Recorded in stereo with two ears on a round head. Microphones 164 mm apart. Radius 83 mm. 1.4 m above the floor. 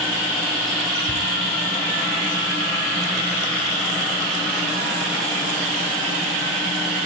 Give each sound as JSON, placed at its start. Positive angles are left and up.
{"t": 1.1, "sound": "ticking", "side_deg": 80, "distance_m": 7.5}